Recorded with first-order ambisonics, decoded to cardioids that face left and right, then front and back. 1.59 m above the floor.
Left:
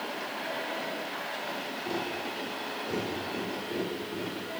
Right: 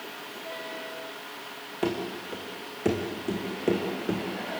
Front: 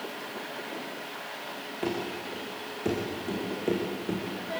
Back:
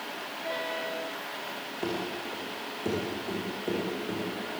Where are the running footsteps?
85° right, 6.5 m; by 4.2 s 70° right, 5.5 m.